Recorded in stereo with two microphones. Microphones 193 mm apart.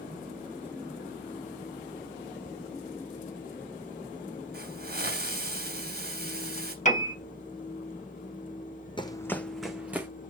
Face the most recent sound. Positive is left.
turn(degrees=-10)  # may be behind; listen again after turning